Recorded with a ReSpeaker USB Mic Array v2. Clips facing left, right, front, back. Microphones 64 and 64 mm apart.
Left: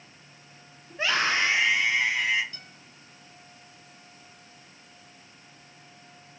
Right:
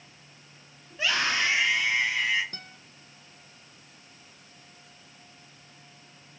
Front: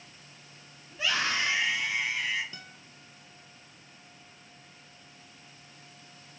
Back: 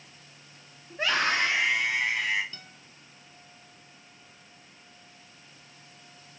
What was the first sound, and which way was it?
A scream, 140° left.